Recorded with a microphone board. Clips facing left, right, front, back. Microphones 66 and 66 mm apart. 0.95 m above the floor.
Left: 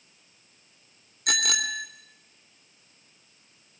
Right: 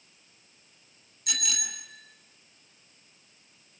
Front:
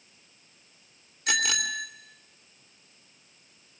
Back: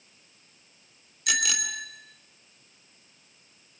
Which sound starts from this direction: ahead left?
A bicycle bell, at 1.3 s.